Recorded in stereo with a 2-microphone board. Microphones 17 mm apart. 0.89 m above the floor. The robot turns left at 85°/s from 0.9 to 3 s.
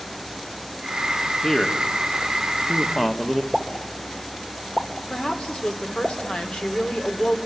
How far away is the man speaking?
About 1.8 m.